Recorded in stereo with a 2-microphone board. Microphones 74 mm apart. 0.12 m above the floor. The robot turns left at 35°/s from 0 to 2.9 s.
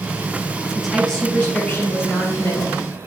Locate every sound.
0.8 s a woman speaking: 175° right, 3.5 m; by 2.8 s 110° left, 3.5 m